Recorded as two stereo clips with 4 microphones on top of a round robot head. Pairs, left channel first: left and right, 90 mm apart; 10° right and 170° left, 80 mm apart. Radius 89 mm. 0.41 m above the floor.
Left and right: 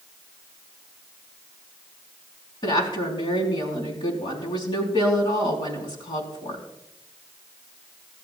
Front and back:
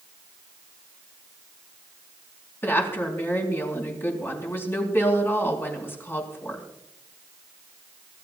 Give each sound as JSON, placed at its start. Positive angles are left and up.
{"t": 2.6, "sound": "a woman speaking", "azimuth_deg": 55, "distance_m": 4.5}